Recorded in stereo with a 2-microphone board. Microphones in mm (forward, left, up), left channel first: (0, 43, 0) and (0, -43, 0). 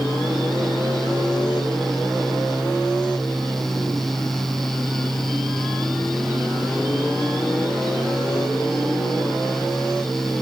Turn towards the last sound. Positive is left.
No sound to turn to.